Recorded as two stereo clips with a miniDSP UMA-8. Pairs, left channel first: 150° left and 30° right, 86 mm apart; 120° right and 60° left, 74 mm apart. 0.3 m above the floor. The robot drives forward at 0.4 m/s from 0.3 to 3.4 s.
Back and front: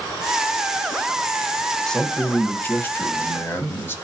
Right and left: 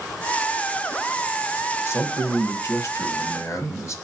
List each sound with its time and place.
1.9 s a man speaking: 130° right, 1.1 m; by 4.0 s 155° right, 1.5 m